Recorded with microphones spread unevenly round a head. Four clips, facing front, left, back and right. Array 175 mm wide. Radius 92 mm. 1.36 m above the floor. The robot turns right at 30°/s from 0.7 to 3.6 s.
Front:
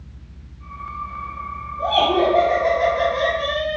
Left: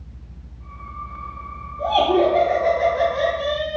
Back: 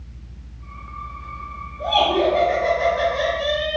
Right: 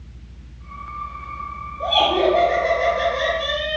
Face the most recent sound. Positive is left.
turn(degrees=125)